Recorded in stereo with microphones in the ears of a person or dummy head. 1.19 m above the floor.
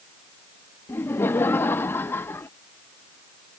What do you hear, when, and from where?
0.9 s laughter: 10° left (ahead or behind)